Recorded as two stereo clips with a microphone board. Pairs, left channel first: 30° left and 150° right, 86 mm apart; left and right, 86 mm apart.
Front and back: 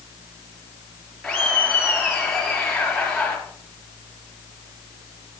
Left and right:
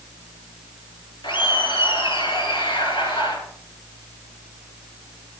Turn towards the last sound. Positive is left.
turn(degrees=115)